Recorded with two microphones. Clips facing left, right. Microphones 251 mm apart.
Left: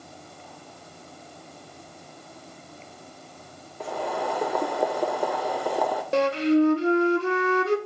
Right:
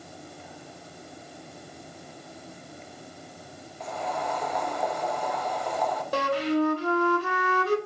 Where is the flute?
25° left (ahead or behind), 0.8 m.